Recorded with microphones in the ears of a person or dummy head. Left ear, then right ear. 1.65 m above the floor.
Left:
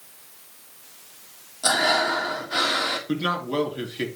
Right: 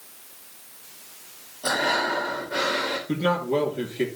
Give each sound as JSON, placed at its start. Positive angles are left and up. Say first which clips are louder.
{"t": 1.6, "sound": "breathing", "louder": "left 3 dB", "side_deg": 55, "distance_m": 2.0}
{"t": 3.1, "sound": "a man speaking", "louder": "right 2 dB", "side_deg": 35, "distance_m": 2.5}